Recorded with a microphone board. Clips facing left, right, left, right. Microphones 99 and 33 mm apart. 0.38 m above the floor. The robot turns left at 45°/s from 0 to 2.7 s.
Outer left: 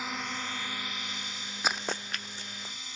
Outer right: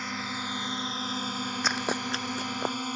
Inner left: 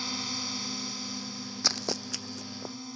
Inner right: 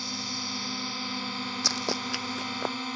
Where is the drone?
5° left; by 3.0 s 115° right.